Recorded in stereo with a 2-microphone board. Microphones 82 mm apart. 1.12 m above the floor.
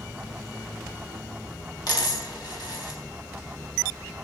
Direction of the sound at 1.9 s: 60° left (ahead or behind).